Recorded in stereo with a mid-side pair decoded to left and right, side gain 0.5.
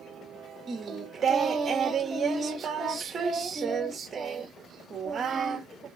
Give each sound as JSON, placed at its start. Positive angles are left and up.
{"t": 0.7, "sound": "singing", "azimuth_deg": -40, "distance_m": 0.9}